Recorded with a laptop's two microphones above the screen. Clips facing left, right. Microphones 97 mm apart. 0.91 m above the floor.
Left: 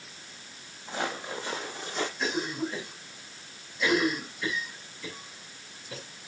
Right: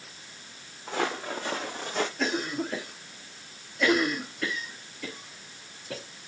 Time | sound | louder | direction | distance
0.9 | footsteps | right 3 dB | 70° right (ahead or behind) | 3 m
2.2 | a cough | right 1 dB | 85° right | 3 m